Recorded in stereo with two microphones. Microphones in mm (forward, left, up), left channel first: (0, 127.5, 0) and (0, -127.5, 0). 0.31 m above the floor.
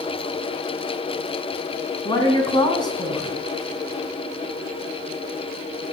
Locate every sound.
2.0 s a woman speaking: 15° left (ahead or behind), 2.5 m